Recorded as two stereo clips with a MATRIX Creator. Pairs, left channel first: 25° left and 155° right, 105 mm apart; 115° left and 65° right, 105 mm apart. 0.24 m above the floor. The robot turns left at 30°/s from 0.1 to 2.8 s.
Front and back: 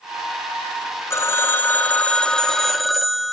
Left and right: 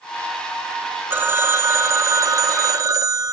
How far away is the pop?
I don't hear a pop.